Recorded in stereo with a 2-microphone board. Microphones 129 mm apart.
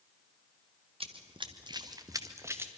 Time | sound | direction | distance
1.0 | running footsteps | 45° right (ahead or behind) | 1.7 m